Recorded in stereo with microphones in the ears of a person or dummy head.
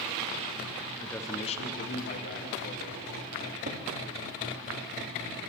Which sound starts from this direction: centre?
A man speaking, at 1.0 s.